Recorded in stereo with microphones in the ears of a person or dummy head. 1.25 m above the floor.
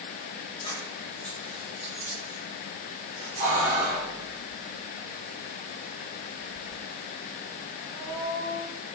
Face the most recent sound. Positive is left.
turn(degrees=-65)  # may be behind; listen again after turning